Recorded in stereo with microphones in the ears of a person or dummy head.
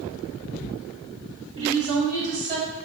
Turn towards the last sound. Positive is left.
turn(degrees=-35)  # may be behind; listen again after turning